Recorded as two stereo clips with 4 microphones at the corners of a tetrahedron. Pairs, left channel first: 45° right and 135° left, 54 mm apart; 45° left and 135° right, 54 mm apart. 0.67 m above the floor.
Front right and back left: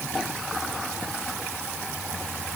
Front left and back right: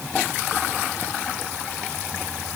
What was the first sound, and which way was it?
Only background noise.